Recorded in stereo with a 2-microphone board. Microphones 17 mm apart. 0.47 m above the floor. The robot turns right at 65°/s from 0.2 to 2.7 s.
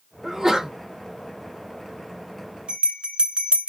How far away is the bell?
About 1.0 m.